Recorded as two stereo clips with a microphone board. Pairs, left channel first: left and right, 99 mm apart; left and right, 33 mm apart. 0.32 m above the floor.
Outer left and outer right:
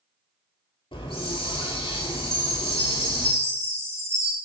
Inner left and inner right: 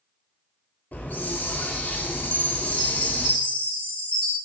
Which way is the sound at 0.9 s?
60° left (ahead or behind).